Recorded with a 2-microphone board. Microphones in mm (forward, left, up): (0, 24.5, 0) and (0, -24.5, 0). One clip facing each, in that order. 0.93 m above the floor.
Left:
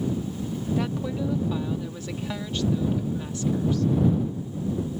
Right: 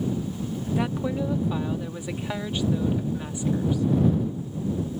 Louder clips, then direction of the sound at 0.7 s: Right 1 dB; 20° right (ahead or behind).